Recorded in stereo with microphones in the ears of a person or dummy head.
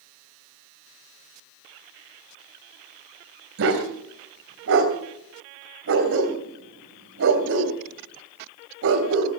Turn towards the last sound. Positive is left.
turn(degrees=-65)  # may be behind; listen again after turning